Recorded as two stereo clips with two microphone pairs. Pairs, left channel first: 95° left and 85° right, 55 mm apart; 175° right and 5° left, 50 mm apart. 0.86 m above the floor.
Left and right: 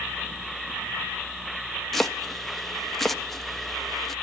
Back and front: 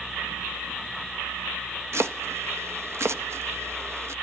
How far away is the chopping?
About 0.6 m.